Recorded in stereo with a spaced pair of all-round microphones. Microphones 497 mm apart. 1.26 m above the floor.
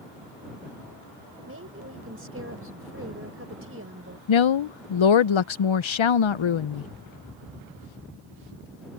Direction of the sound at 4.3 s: 70° left (ahead or behind).